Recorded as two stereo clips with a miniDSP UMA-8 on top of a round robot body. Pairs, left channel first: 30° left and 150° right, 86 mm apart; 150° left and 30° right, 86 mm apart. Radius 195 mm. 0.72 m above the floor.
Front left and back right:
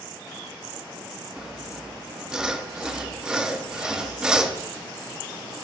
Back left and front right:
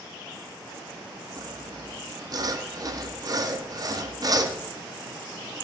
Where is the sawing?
70° right, 1.8 m.